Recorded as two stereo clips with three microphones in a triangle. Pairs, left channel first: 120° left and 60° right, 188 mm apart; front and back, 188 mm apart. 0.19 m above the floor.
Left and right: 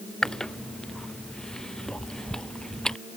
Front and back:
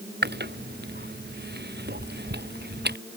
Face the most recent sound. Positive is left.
turn(degrees=-155)